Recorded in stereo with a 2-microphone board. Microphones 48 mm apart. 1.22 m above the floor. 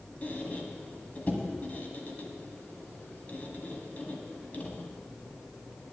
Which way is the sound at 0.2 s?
40° left (ahead or behind).